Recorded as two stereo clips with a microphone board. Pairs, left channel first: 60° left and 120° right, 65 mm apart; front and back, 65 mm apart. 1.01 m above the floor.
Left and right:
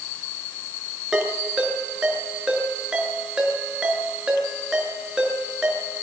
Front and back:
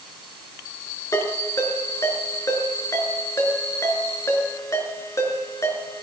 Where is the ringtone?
40° right, 5.5 m.